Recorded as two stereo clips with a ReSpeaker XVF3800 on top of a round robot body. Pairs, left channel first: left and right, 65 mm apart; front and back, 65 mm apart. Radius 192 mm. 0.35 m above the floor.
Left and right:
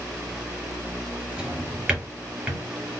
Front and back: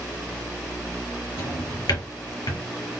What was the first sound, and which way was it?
A drawer, 10° right.